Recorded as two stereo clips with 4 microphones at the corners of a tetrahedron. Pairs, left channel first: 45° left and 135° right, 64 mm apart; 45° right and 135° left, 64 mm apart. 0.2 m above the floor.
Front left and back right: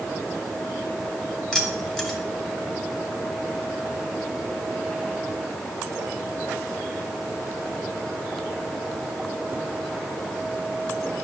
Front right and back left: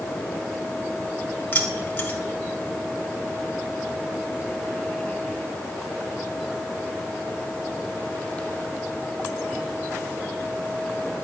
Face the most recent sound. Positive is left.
turn(degrees=-25)